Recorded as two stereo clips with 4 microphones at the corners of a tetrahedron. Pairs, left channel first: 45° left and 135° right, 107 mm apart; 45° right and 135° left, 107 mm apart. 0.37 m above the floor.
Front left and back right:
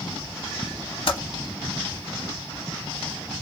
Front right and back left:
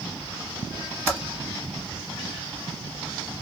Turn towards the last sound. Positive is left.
turn(degrees=65)